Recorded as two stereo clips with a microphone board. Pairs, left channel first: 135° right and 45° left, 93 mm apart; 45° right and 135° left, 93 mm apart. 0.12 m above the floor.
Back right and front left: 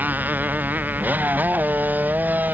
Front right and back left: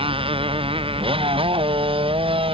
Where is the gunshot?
No gunshot in this recording.